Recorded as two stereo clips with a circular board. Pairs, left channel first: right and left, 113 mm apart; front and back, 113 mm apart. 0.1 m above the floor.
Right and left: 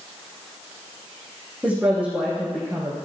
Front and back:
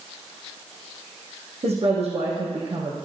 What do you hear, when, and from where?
1.6 s a woman speaking: 175° left, 3 m